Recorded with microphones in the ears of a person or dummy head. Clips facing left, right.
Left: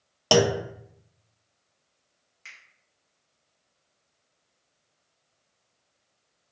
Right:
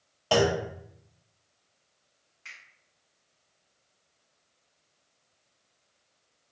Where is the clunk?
60° left (ahead or behind), 0.5 m.